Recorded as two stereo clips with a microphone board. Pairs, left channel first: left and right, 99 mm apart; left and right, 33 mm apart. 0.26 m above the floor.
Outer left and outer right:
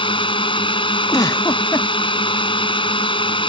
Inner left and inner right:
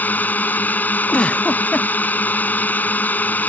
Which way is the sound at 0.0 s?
60° left (ahead or behind).